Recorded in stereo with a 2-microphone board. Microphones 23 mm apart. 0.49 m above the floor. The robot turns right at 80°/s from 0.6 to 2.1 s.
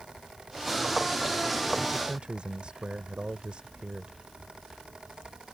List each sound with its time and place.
1.9 s a man speaking: 55° right (ahead or behind); by 4.2 s 45° right (ahead or behind)